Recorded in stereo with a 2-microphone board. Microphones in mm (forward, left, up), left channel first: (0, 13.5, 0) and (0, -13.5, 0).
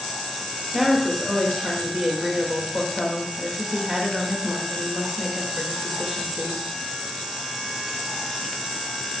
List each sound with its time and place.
0.7 s a woman speaking: centre (ahead or behind), 0.8 m